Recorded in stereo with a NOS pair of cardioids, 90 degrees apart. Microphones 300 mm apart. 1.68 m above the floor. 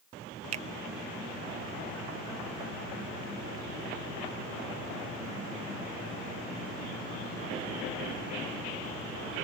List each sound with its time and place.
0.5 s a finger snap: 55° right